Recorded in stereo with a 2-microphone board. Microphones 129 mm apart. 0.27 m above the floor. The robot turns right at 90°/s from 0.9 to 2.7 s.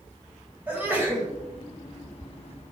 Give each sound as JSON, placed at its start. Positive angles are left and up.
{"t": 0.7, "sound": "a sneeze", "side_deg": -15, "distance_m": 1.4}